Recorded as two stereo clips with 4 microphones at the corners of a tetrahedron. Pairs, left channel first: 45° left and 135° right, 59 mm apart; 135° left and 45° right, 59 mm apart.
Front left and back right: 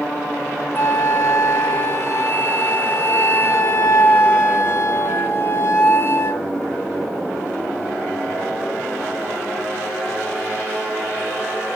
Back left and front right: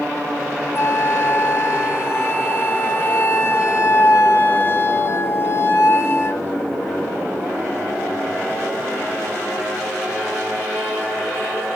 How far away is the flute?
About 0.9 m.